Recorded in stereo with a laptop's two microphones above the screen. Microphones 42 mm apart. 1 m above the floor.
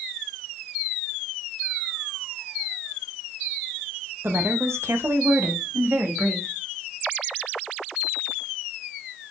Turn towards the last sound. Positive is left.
turn(degrees=-55)  # may be behind; listen again after turning